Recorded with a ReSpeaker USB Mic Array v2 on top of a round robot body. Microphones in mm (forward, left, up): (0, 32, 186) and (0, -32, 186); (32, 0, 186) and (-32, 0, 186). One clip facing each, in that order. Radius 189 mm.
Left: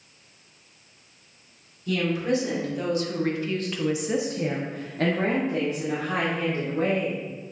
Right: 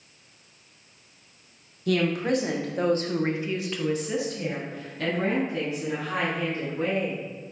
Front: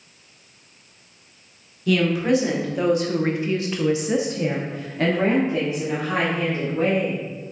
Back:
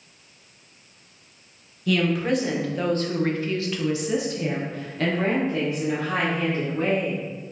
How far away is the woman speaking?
About 1.4 m.